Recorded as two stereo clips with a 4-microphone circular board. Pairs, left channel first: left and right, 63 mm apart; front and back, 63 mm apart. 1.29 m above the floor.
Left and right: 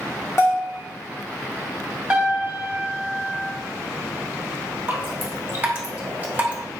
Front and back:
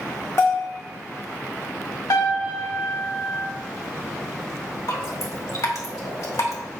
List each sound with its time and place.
0.4 s a bell: 45° left, 1.8 m
2.1 s a piano: 15° right, 3 m
4.9 s dripping: 25° right, 1.8 m